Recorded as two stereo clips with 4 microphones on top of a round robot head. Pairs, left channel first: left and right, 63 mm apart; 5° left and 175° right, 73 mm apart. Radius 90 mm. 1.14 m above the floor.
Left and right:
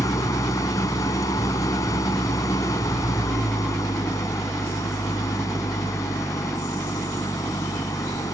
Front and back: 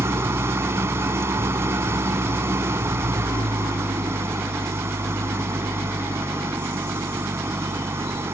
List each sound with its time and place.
0.0 s an engine running: 130° left